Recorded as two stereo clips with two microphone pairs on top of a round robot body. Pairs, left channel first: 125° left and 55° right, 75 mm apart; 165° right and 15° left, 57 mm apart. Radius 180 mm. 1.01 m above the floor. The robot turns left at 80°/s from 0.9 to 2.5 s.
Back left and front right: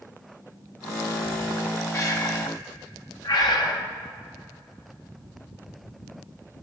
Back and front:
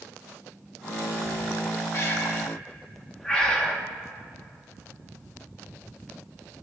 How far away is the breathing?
About 1.5 m.